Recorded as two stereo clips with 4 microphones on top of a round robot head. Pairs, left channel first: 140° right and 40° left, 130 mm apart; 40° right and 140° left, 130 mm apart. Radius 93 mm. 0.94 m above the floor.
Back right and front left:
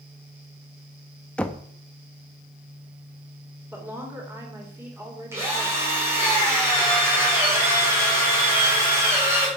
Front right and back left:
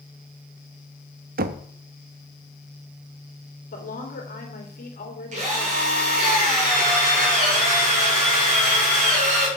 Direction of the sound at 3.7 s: 35° right.